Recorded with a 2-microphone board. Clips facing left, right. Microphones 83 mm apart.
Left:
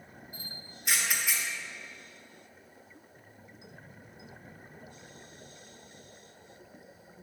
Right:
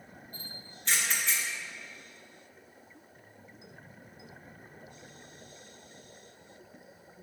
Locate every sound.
0.3 s a camera shutter: 10° left (ahead or behind), 1.4 m